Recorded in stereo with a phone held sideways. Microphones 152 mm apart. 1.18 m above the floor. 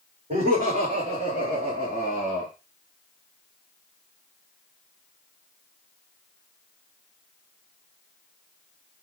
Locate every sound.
0.3 s laughter: 70° right (ahead or behind), 3.5 m; by 2.5 s 55° right (ahead or behind), 1.6 m